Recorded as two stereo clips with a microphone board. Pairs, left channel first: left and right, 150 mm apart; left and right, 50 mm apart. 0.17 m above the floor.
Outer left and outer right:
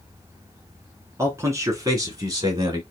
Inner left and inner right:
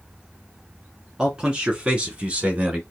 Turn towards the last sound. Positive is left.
turn(degrees=-25)  # may be behind; listen again after turning